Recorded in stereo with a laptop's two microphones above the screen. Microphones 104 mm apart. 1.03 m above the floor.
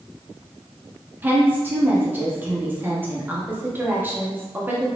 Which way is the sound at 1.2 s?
20° right (ahead or behind).